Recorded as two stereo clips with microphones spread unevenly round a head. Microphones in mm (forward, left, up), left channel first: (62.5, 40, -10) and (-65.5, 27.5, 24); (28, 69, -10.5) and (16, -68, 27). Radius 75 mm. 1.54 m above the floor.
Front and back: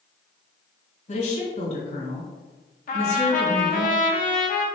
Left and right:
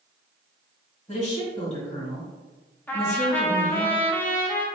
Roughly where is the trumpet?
Ahead.